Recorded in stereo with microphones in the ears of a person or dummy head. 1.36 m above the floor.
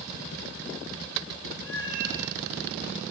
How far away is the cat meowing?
About 3 m.